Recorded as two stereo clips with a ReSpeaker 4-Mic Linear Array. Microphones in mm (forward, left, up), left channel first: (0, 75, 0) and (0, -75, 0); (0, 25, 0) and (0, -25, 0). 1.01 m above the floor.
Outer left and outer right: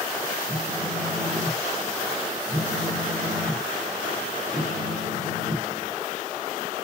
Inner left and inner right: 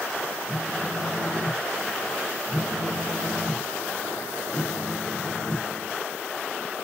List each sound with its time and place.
0.5 s a phone buzzing: 50° right (ahead or behind), 2.5 m